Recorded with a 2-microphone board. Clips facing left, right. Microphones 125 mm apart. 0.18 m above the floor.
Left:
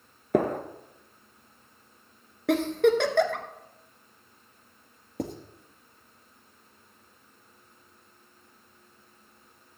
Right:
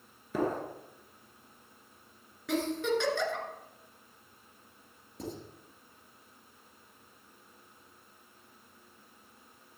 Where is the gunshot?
65° left (ahead or behind), 1.2 m.